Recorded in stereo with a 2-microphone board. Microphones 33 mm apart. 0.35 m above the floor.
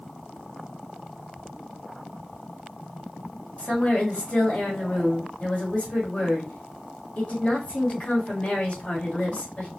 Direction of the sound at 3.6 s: 40° left (ahead or behind).